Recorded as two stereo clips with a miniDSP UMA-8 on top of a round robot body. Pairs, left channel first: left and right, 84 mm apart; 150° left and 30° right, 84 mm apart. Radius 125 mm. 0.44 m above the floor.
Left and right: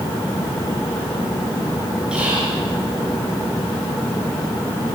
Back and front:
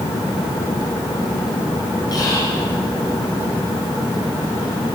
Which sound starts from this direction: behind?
Whispering, at 2.1 s.